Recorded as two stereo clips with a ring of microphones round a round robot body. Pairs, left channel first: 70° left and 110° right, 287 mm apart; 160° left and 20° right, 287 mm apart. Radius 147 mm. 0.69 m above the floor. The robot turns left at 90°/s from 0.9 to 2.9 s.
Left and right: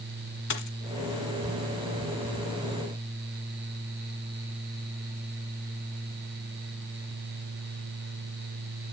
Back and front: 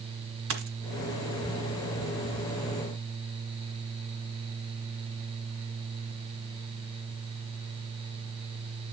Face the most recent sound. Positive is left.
turn(degrees=-160)